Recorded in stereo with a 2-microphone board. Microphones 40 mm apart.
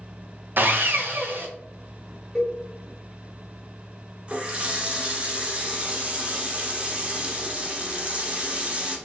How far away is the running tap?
About 0.7 m.